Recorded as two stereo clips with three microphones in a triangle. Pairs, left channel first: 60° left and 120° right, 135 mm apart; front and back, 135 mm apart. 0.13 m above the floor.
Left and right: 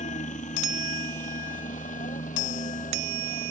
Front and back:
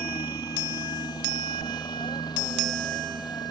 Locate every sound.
0.0 s a helicopter: 60° left; by 3.5 s 55° left